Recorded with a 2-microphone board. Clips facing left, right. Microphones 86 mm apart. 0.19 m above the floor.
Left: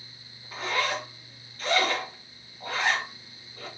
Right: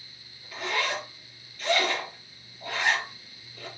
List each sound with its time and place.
0.5 s a zipper: 40° left (ahead or behind), 1.6 m